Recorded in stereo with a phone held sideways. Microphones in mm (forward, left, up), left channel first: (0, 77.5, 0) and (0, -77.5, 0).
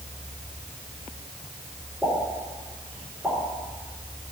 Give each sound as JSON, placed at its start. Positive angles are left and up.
{"t": 2.0, "sound": "a pop", "side_deg": 0, "distance_m": 3.5}